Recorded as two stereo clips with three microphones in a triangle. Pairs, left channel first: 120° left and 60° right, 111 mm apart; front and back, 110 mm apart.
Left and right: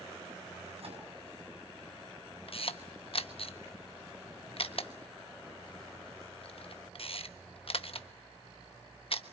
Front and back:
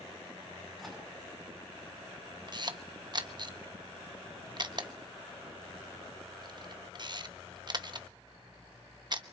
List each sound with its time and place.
0.8 s a microwave: 90° right, 7.5 m
2.5 s a camera shutter: 140° left, 1.1 m